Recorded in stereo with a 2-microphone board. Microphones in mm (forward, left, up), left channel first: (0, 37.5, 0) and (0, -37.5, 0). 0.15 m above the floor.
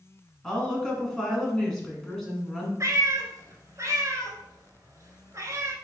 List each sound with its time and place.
0.4 s a woman speaking: 5° left (ahead or behind), 1.5 m
2.8 s a cat meowing: 50° right (ahead or behind), 0.9 m